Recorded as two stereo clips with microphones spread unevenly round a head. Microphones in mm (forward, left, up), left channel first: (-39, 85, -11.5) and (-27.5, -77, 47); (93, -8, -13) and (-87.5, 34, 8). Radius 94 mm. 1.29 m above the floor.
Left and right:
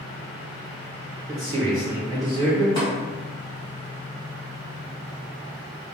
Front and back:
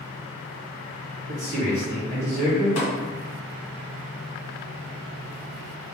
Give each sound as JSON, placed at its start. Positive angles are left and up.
{"t": 1.3, "sound": "a man speaking", "azimuth_deg": -155, "distance_m": 1.0}
{"t": 2.8, "sound": "tapping", "azimuth_deg": 15, "distance_m": 1.3}